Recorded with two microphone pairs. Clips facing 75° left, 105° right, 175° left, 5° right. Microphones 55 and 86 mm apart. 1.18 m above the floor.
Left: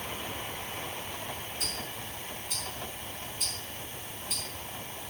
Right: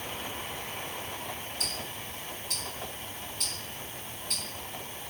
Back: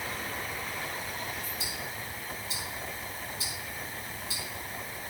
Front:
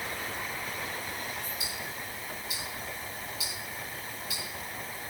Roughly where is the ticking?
Behind right.